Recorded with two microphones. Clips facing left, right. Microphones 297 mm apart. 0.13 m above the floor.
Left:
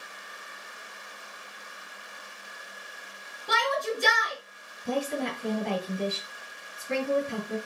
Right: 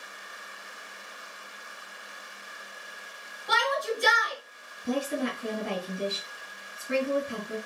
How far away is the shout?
About 1.5 m.